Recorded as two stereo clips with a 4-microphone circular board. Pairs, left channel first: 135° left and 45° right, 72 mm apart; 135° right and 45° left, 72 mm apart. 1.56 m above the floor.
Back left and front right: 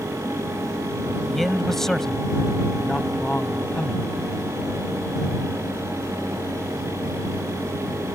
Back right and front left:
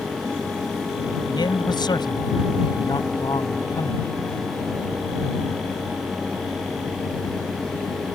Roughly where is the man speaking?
Behind right.